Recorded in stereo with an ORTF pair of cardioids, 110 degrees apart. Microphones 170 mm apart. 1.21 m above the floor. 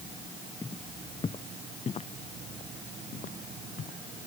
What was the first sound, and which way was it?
Footsteps, 20° left.